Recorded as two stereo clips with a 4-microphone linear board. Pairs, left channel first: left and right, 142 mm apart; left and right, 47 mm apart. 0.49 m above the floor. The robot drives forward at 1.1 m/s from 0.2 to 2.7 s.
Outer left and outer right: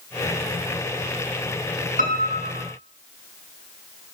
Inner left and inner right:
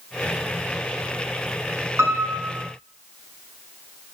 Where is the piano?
75° right (ahead or behind), 7 m; by 2.7 s 70° right (ahead or behind), 7 m.